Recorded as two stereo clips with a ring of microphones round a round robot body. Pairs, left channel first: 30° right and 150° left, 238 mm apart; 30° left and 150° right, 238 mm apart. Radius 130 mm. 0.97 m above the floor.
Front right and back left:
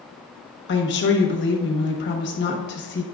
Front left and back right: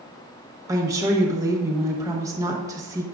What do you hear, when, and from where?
0.7 s a woman speaking: 75° right, 1.2 m